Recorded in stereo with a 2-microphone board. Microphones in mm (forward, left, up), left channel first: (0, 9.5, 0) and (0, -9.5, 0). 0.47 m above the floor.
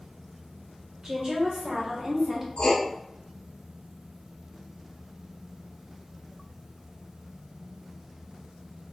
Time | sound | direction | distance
1.0 | a woman speaking | 40° right (ahead or behind) | 1.6 m
2.6 | writing | 70° left (ahead or behind) | 0.8 m